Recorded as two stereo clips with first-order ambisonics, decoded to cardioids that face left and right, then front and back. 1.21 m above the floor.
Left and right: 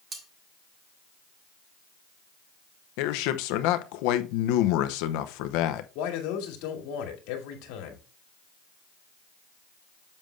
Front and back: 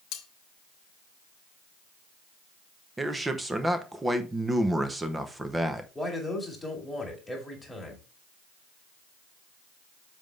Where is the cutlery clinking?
25° right, 1.2 m.